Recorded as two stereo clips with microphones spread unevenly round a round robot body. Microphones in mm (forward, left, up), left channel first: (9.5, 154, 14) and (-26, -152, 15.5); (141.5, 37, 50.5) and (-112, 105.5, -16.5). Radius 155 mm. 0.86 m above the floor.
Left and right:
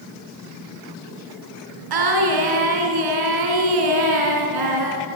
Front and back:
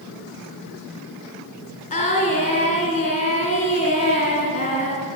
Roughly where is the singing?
Right.